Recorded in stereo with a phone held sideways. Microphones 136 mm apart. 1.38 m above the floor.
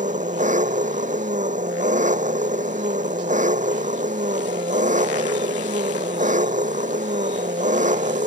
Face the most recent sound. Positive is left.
turn(degrees=-75)  # may be behind; listen again after turning